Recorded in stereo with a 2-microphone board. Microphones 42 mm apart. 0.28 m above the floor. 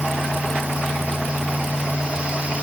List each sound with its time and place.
Only background noise.